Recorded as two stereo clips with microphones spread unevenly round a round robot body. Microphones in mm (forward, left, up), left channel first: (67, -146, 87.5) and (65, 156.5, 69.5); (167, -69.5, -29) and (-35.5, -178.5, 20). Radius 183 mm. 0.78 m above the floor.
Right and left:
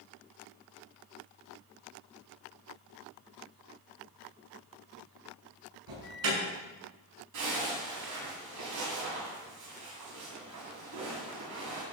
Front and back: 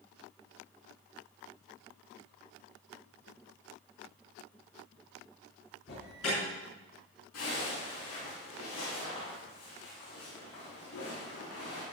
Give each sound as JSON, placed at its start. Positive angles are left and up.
{"t": 5.9, "sound": "an alarm", "azimuth_deg": 80, "distance_m": 7.5}
{"t": 7.3, "sound": "a zipper", "azimuth_deg": 70, "distance_m": 8.0}